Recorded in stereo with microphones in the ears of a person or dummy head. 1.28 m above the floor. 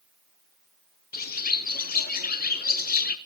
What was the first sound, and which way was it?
A bird, 45° left (ahead or behind).